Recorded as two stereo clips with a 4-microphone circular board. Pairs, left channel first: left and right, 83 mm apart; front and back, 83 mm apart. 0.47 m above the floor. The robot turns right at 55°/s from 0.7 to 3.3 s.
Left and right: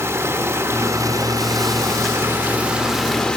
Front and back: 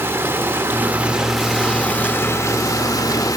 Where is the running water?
130° right, 0.9 m; by 3.4 s 15° left, 0.9 m.